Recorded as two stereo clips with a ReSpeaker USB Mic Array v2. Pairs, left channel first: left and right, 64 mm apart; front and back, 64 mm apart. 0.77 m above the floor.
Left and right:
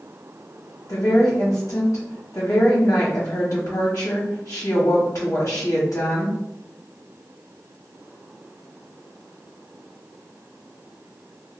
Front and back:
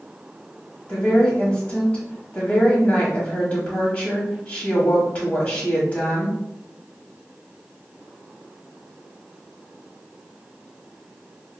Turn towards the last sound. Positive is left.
turn(degrees=55)